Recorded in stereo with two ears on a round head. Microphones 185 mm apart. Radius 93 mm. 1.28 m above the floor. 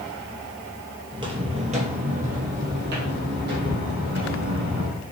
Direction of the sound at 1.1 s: 20° right (ahead or behind).